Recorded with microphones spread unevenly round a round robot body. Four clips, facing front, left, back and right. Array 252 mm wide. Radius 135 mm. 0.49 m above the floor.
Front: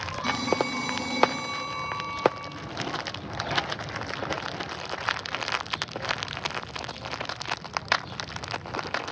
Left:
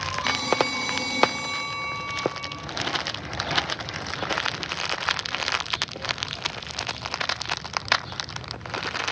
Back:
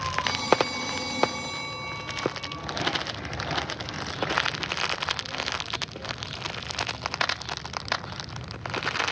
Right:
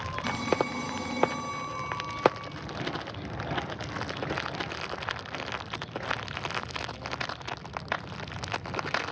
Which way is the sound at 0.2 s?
30° right.